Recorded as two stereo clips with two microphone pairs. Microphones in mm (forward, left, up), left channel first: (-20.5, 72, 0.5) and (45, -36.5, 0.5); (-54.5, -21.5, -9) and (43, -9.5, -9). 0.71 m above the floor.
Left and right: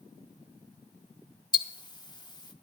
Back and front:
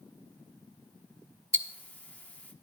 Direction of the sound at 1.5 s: 125° left.